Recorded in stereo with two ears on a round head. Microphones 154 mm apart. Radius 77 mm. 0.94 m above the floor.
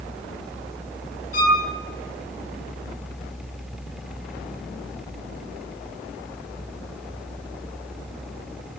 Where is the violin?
55° left (ahead or behind), 5.5 m.